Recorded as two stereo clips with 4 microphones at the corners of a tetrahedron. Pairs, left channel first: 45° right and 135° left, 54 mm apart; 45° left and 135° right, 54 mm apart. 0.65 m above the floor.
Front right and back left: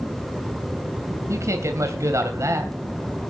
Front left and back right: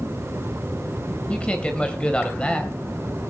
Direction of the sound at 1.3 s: 115° left.